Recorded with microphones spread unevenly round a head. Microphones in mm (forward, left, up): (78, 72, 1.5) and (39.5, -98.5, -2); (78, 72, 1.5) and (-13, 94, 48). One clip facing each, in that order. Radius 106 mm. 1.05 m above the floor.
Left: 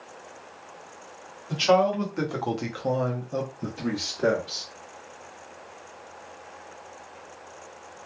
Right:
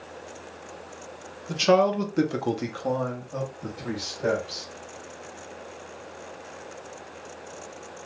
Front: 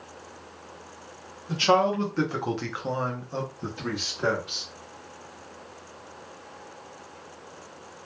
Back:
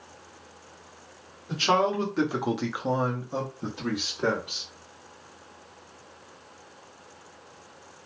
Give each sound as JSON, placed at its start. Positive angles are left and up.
{"t": 1.5, "sound": "a man speaking", "azimuth_deg": -90, "distance_m": 0.9}